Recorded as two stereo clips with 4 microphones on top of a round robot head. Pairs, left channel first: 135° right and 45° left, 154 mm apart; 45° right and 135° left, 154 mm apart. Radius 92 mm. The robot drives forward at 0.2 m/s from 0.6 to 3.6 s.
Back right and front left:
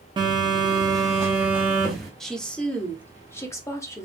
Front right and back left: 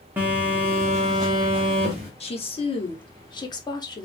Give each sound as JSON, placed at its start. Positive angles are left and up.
{"t": 0.2, "sound": "a phone buzzing", "azimuth_deg": 65, "distance_m": 0.5}
{"t": 2.2, "sound": "a woman speaking", "azimuth_deg": -50, "distance_m": 0.8}